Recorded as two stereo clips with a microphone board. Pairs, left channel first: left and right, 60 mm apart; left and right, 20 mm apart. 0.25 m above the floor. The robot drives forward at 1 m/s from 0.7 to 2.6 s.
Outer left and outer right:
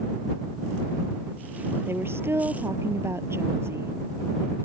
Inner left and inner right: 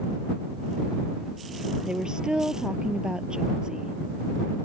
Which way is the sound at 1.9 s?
40° right (ahead or behind).